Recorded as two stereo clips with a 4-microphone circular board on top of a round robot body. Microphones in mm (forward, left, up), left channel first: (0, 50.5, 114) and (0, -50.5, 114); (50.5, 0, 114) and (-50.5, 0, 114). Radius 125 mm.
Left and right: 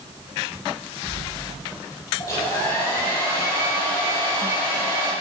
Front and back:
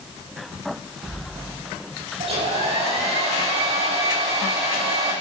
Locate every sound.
2.2 s a hair dryer: 155° left, 7 m